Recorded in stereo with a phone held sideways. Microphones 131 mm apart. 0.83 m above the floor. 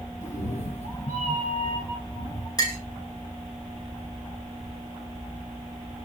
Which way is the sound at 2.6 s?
30° left (ahead or behind).